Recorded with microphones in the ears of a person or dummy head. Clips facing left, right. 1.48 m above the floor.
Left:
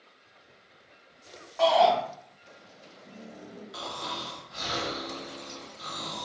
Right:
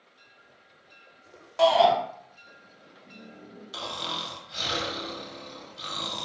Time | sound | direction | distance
1.6 | a shout | 45° right (ahead or behind) | 0.7 m
3.7 | snoring | 35° right (ahead or behind) | 0.6 m